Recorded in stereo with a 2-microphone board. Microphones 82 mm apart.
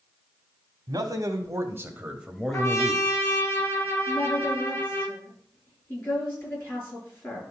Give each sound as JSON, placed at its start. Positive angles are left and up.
{"t": 0.9, "sound": "a man speaking", "side_deg": -50, "distance_m": 1.9}
{"t": 2.5, "sound": "a trumpet", "side_deg": 30, "distance_m": 1.9}
{"t": 4.1, "sound": "a woman speaking", "side_deg": 25, "distance_m": 5.5}